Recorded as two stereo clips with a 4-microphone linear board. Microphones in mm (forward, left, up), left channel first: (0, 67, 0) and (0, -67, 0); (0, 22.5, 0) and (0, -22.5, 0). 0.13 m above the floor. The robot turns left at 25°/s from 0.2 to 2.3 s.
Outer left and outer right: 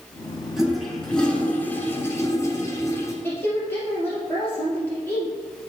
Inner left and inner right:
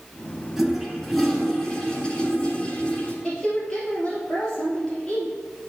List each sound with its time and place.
0.6 s a toilet flushing: 175° right, 1.5 m; by 3.1 s 140° left, 1.5 m
3.2 s a woman speaking: 15° left (ahead or behind), 2.5 m